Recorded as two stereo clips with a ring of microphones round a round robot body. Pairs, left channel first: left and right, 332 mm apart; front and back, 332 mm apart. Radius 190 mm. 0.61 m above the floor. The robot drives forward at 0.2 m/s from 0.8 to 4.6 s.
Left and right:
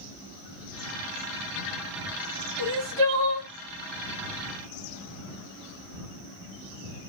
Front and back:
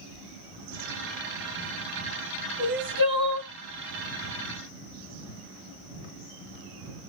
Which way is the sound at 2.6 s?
115° right.